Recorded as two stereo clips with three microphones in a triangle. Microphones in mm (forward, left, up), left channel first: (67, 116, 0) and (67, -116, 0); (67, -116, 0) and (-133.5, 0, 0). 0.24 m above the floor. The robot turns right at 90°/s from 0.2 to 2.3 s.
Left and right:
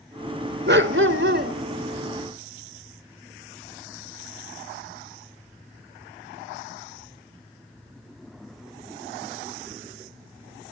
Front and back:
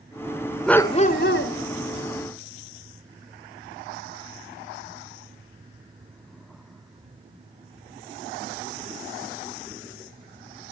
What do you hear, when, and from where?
0.7 s a dog barking: 120° right, 1.2 m; by 1.5 s 40° right, 1.2 m